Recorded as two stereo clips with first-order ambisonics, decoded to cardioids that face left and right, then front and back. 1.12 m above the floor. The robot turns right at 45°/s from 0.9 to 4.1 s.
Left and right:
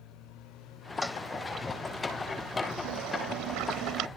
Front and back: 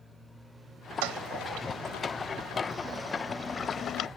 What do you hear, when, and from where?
1.0 s a toilet flushing: 170° left; by 4.1 s 50° right